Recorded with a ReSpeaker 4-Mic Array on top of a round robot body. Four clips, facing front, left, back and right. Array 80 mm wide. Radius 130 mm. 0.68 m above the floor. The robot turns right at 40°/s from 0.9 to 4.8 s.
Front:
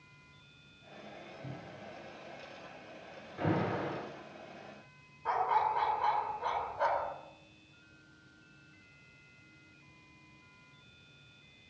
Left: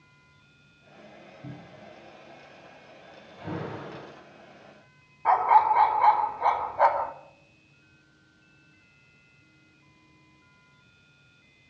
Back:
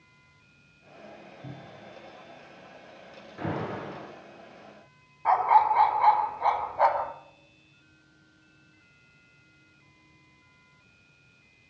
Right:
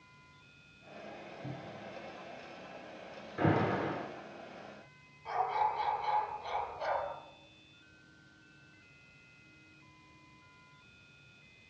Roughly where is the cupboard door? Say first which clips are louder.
Left 1 dB, back 3 dB; left.